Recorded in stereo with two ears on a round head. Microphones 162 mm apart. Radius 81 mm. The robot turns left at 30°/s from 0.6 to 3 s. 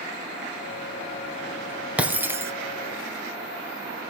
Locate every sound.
2.0 s breaking glass: 10° right (ahead or behind), 1.3 m; by 2.5 s 15° right (ahead or behind), 1.3 m